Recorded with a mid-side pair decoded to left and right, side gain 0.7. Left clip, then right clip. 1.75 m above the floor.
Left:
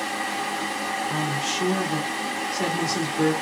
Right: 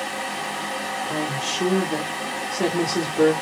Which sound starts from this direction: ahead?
A fan, at 0.0 s.